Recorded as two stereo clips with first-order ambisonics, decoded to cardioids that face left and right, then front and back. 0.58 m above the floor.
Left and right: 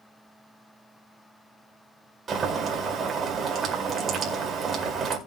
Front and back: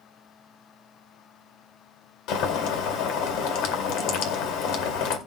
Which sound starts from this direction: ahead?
Boiling, at 2.3 s.